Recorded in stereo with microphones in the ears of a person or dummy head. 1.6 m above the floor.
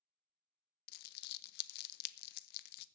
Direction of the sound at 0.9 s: 60° left (ahead or behind).